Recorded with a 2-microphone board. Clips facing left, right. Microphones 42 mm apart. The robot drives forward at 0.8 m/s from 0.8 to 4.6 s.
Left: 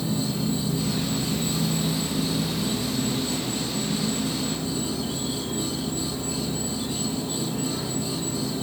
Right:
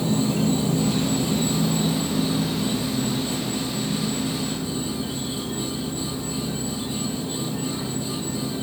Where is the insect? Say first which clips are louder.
Right 5 dB; 65° right (ahead or behind), 1.3 m; by 8.6 s 20° right (ahead or behind), 3.5 m.